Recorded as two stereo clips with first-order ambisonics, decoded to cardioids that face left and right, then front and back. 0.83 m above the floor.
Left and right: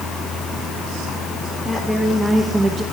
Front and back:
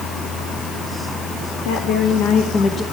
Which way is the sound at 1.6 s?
Straight ahead.